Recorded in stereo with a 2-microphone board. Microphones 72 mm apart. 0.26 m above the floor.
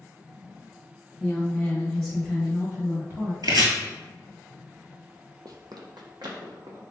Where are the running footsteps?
65° right (ahead or behind), 0.5 m; by 6.8 s 85° right, 1.4 m.